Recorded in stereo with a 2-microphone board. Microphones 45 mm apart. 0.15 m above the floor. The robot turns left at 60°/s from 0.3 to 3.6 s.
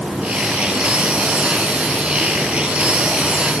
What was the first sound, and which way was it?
Only background noise.